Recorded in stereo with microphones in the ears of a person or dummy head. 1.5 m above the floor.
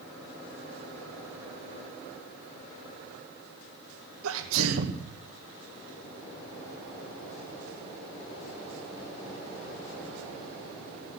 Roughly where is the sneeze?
Right.